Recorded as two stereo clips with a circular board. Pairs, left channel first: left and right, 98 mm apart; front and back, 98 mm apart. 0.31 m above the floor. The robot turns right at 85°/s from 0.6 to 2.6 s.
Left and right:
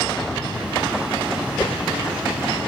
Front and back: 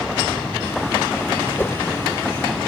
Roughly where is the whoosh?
Ahead left.